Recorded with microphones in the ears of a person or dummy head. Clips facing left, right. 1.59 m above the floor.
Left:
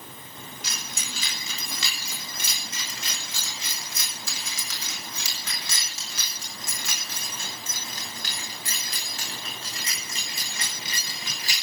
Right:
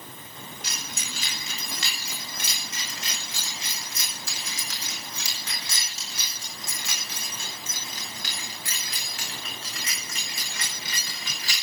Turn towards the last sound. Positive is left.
turn(degrees=20)  # may be behind; listen again after turning